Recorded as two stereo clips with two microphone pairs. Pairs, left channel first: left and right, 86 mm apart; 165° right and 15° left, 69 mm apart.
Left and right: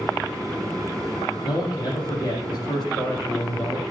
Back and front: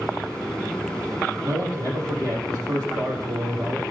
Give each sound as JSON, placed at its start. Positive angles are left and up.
{"t": 1.4, "sound": "a man speaking", "azimuth_deg": 50, "distance_m": 7.0}